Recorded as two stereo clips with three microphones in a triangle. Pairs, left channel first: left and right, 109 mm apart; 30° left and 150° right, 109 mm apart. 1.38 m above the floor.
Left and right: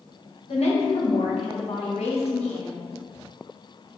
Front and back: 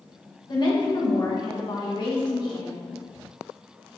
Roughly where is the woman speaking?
Left.